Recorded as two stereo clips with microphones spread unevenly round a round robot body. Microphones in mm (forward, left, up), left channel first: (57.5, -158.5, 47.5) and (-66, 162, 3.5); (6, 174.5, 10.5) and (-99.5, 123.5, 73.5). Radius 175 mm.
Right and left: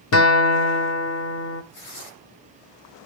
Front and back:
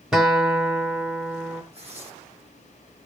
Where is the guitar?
30° right, 1.0 m.